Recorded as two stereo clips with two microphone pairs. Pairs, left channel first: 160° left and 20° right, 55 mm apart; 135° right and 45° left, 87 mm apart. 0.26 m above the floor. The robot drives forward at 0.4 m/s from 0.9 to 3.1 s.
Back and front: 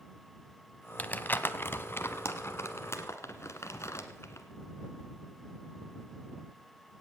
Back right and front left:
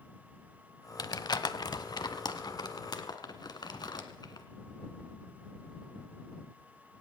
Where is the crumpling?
150° right, 0.7 m; by 4.5 s 170° right, 1.4 m.